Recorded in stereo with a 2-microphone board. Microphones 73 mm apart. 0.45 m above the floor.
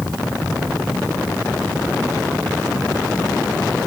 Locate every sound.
Only background noise.